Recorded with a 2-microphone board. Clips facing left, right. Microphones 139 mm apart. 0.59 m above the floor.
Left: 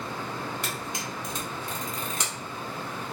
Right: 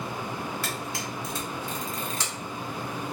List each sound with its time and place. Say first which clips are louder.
0.6 s a camera shutter: right 1 dB; 20° left (ahead or behind), 1.4 m